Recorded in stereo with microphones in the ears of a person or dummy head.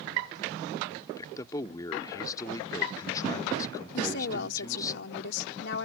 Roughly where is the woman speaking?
Left.